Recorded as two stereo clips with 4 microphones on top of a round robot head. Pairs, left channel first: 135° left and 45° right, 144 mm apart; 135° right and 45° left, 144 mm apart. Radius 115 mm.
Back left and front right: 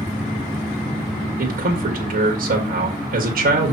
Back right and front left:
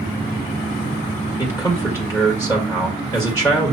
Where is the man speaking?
65° right, 1.8 m.